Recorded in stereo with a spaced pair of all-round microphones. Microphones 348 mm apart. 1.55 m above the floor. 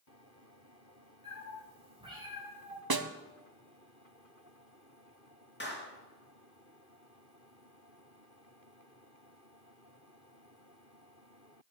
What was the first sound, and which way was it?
A cat meowing, 25° right (ahead or behind).